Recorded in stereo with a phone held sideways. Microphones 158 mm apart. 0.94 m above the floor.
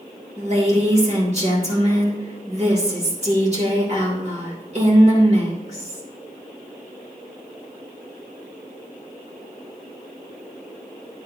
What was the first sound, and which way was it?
A woman speaking, 45° right (ahead or behind).